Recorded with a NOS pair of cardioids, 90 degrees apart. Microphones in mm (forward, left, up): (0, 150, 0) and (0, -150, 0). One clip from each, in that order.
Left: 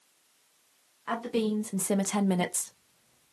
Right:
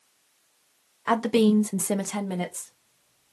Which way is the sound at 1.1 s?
55° right.